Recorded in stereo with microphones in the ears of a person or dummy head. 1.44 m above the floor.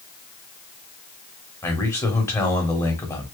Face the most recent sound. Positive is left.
turn(degrees=15)  # may be behind; listen again after turning